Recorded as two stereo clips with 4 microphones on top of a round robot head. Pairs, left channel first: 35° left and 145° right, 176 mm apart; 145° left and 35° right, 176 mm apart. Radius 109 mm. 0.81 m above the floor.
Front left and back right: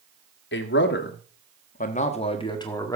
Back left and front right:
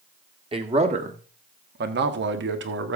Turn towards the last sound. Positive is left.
turn(degrees=-40)